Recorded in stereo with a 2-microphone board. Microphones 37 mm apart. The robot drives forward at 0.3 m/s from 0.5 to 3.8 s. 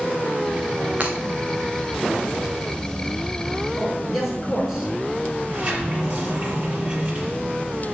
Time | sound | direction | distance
1.0 | breaking glass | 35° right (ahead or behind) | 3 m
3.8 | a man speaking | 5° right (ahead or behind) | 5 m
5.4 | a sliding door | 45° right (ahead or behind) | 5 m